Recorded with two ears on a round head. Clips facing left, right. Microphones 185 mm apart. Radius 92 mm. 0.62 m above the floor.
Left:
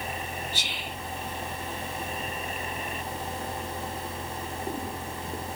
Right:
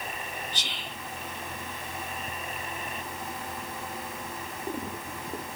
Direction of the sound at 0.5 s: 10° left (ahead or behind).